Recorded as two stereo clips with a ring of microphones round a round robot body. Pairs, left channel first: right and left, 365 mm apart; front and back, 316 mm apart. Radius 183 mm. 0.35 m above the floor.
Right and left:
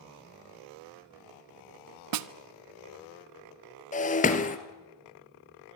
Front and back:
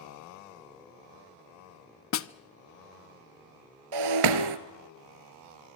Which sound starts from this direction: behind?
Breaking glass, at 3.9 s.